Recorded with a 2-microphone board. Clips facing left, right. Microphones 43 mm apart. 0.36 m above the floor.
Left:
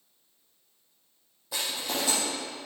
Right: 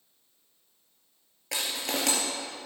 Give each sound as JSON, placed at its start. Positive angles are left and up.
{"t": 1.5, "sound": "crushing", "side_deg": -75, "distance_m": 3.0}